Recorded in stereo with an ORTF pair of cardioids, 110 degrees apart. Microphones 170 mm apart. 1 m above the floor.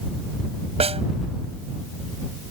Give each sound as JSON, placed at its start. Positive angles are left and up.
{"t": 0.8, "sound": "a snare drum", "azimuth_deg": -35}